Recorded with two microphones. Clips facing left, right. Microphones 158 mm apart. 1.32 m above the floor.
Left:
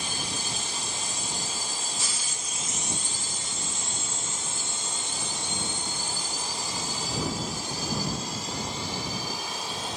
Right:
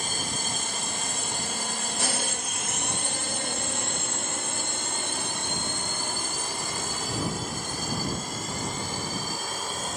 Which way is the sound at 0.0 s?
50° right (ahead or behind).